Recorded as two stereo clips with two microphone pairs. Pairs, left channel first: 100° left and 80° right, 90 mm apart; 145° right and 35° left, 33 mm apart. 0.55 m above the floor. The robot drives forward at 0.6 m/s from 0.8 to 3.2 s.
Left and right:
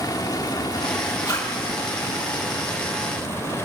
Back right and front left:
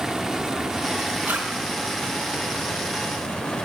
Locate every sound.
0.0 s running water: 100° left, 0.9 m; by 3.7 s 155° left, 1.8 m
1.2 s a zipper: 50° left, 5.5 m